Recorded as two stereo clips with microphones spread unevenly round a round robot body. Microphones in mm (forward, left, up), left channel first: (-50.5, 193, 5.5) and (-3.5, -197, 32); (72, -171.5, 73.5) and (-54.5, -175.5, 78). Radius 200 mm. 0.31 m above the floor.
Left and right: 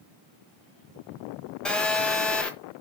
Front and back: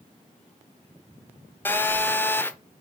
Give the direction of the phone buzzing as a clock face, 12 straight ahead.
11 o'clock.